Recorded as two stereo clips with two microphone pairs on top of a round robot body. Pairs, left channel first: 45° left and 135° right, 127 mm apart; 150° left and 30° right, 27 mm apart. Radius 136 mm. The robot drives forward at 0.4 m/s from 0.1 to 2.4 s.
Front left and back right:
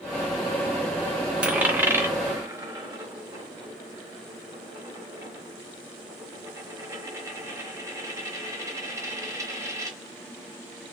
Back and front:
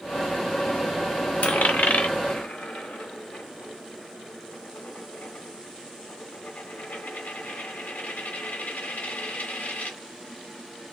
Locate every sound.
1.4 s a dropped coin: 140° left, 0.7 m; by 10.0 s 155° left, 1.0 m